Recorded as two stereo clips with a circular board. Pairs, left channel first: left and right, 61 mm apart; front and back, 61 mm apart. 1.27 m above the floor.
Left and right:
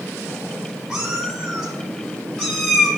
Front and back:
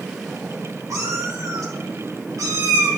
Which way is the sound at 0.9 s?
170° right.